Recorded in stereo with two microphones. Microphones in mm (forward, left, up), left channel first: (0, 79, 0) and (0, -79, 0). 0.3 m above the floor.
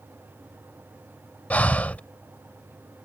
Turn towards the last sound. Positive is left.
turn(degrees=10)  # may be behind; listen again after turning